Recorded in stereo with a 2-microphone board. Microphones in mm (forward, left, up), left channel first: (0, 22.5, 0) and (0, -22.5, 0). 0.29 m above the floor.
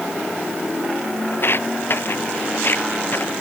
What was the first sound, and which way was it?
Footsteps, 55° left (ahead or behind).